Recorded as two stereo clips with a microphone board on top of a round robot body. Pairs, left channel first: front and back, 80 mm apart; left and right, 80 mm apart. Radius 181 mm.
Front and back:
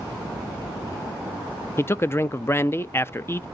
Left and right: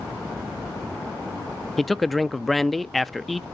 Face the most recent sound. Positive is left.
turn(degrees=5)